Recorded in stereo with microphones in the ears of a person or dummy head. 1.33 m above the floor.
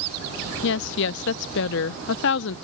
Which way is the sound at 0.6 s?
65° left (ahead or behind).